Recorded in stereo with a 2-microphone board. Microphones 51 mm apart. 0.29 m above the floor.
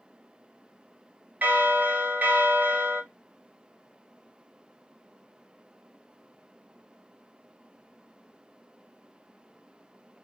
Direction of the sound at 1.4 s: 35° right (ahead or behind).